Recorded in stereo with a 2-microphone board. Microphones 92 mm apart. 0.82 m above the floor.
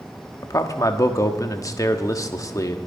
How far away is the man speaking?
About 1.2 m.